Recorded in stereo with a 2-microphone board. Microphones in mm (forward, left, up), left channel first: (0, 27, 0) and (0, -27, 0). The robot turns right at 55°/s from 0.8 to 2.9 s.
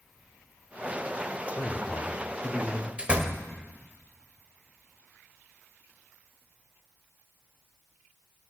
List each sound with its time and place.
1.6 s a man speaking: 90° left, 0.9 m; by 2.9 s 165° left, 0.9 m
3.0 s a door slam: 25° right (ahead or behind), 1.3 m